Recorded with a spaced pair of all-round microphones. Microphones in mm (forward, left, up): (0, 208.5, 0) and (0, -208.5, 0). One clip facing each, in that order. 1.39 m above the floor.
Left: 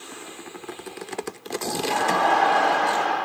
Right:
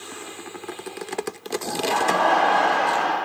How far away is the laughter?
About 2.0 m.